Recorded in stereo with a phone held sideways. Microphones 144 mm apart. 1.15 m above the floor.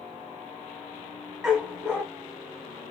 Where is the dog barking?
5° right (ahead or behind), 1.0 m.